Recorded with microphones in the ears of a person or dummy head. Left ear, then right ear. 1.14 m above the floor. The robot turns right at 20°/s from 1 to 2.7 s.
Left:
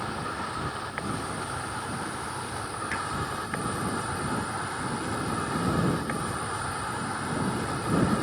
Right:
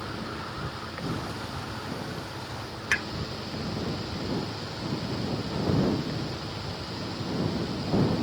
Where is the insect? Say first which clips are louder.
Left 3 dB; 55° left; by 8.2 s 90° left.